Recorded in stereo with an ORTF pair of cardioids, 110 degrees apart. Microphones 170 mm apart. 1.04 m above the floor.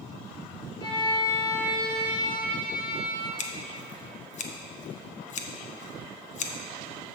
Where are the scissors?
45° left, 0.8 m.